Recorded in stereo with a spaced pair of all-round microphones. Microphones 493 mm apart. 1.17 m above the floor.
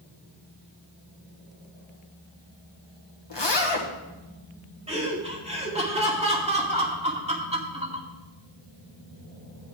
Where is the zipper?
55° left (ahead or behind), 1.3 m.